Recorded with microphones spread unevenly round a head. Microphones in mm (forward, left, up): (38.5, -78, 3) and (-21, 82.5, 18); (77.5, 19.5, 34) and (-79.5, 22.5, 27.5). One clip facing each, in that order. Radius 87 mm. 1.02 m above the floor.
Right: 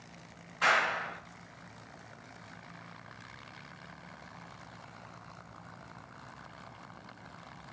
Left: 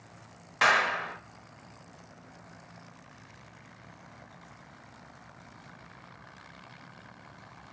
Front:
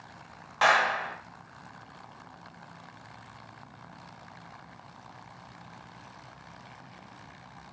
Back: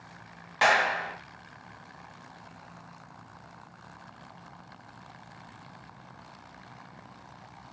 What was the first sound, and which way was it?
A clap, 105° left.